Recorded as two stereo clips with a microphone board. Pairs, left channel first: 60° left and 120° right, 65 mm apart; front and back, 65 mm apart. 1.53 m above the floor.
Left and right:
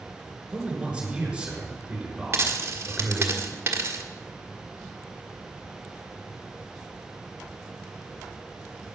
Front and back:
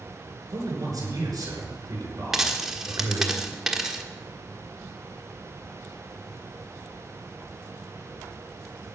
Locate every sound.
0.5 s a man speaking: 165° left, 5.5 m
2.3 s a dropped coin: 95° right, 1.3 m